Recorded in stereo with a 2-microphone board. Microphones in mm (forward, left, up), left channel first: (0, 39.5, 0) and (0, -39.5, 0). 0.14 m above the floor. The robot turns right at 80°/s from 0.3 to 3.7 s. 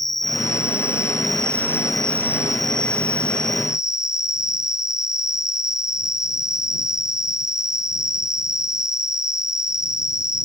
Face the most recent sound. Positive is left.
turn(degrees=140)